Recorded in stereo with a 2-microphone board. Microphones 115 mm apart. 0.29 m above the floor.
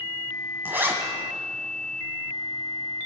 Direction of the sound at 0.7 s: 20° right (ahead or behind).